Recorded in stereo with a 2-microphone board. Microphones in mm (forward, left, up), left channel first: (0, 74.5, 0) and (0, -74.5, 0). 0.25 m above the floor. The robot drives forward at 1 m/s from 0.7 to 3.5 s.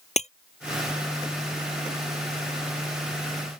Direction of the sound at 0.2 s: 50° left (ahead or behind).